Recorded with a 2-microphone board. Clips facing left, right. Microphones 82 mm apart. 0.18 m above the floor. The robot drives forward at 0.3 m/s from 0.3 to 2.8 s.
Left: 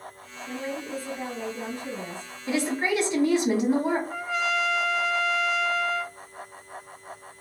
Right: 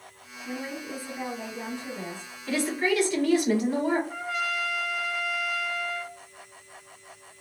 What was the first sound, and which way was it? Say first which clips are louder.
A woman speaking: left 2 dB; 15° right (ahead or behind).